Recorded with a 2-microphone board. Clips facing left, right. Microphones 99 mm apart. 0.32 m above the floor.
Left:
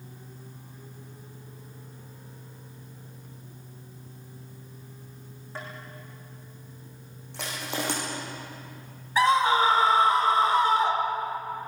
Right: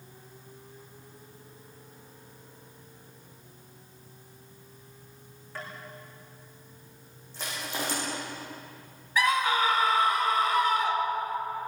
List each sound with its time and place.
5.5 s tapping: 25° left (ahead or behind), 9 m
7.3 s crushing: 75° left (ahead or behind), 9.5 m
9.2 s a scream: 30° left (ahead or behind), 1.1 m